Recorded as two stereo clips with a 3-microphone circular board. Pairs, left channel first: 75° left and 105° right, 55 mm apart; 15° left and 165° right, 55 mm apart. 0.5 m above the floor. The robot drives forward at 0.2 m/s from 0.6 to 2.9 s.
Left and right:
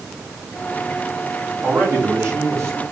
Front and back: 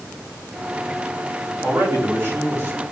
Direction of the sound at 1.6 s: 135° right.